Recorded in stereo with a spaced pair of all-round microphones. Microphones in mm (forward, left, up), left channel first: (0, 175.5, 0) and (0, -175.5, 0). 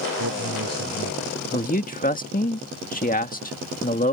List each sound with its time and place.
0.2 s a man speaking: 65° right (ahead or behind)
1.5 s a man speaking: 25° left (ahead or behind)